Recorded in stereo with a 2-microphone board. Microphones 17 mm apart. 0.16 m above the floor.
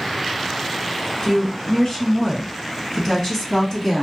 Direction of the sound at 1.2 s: 25° left (ahead or behind).